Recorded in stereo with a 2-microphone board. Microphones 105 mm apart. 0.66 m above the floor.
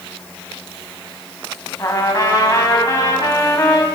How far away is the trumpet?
About 1.6 m.